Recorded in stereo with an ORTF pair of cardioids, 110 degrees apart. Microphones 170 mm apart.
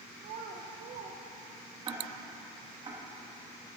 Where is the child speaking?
60° right, 0.7 m.